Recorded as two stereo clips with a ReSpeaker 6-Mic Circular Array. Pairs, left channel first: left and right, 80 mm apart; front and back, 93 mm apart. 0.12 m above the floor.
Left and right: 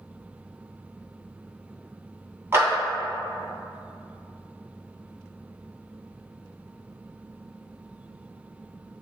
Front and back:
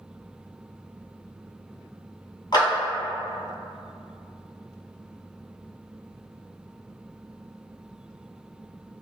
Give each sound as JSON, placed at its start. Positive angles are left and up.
{"t": 2.5, "sound": "a clap", "azimuth_deg": -30, "distance_m": 2.0}